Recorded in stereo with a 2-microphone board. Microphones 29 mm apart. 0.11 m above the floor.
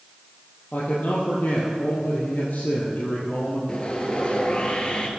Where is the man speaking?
65° left (ahead or behind), 3 m.